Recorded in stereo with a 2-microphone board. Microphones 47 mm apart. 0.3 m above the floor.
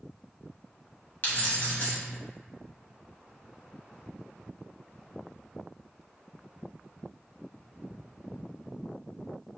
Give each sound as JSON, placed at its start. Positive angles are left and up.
{"t": 1.2, "sound": "keys jangling", "side_deg": 50, "distance_m": 1.5}